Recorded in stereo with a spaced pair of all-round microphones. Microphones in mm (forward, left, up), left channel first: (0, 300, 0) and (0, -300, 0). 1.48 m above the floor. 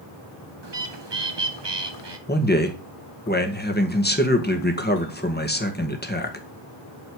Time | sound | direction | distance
0.6 | a bird | 45° right (ahead or behind) | 1.3 m
2.3 | a man speaking | 15° left (ahead or behind) | 2 m